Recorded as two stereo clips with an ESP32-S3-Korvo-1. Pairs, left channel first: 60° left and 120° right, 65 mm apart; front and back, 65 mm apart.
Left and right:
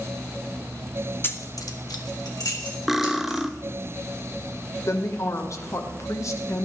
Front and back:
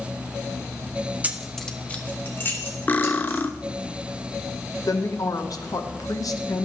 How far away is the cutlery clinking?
About 0.6 m.